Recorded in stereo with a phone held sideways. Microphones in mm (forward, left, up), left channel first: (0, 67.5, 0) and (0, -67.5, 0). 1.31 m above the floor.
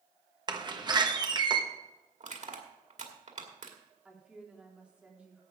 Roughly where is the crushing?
Right.